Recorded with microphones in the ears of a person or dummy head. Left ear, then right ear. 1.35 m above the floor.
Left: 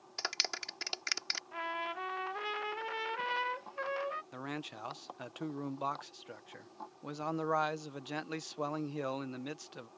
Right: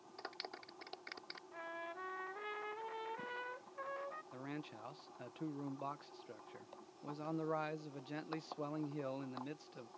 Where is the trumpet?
55° left (ahead or behind).